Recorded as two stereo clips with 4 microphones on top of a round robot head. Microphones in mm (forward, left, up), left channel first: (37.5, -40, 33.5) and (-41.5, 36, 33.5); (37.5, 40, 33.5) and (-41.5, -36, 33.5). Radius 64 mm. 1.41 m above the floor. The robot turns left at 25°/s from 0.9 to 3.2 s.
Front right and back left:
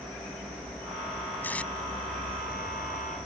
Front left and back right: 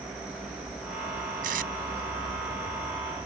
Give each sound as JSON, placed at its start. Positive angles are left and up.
{"t": 1.4, "sound": "tape being pulled", "azimuth_deg": -120}